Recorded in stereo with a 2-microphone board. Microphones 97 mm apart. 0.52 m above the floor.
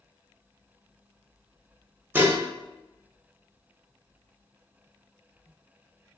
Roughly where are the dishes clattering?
Centre.